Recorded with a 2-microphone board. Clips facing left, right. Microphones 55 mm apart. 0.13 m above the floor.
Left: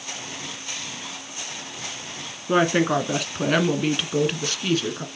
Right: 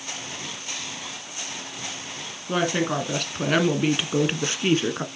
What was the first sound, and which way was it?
A woman speaking, 25° left (ahead or behind).